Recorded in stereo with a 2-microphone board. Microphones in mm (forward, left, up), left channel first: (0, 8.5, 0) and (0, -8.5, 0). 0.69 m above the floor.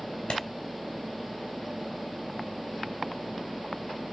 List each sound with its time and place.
0.3 s a clap: 80° left, 3 m